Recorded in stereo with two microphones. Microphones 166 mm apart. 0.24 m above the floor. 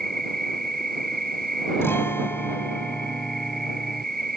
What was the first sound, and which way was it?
An insect, 60° right (ahead or behind).